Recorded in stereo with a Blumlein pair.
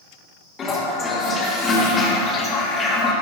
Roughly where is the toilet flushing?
Ahead.